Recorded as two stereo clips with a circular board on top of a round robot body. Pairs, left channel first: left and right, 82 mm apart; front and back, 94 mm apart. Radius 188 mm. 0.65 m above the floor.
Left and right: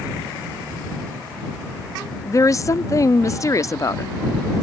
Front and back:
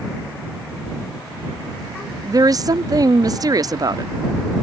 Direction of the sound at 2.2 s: 135° left.